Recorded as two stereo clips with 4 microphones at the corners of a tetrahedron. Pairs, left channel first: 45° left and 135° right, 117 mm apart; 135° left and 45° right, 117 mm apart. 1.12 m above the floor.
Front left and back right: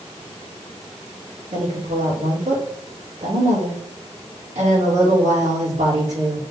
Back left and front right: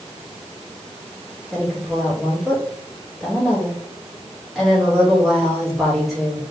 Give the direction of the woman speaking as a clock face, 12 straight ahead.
4 o'clock.